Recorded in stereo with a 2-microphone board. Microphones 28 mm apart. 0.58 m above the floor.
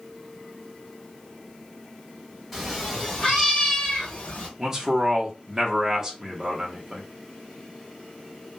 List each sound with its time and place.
2.5 s a cat meowing: 5° right (ahead or behind), 1.3 m; by 4.5 s 45° left (ahead or behind), 1.3 m
4.6 s a man speaking: 20° right (ahead or behind), 0.9 m